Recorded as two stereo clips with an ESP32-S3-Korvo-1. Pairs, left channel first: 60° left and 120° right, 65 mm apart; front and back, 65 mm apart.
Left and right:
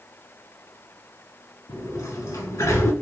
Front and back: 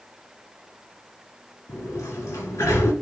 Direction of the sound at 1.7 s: 40° left.